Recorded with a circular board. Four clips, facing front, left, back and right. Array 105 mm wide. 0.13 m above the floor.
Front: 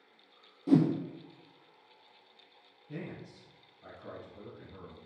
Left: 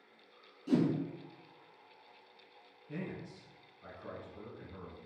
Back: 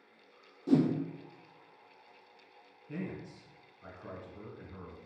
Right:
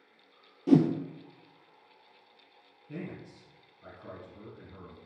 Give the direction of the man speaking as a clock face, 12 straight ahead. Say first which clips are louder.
Right 1 dB, back 2 dB; 6 o'clock.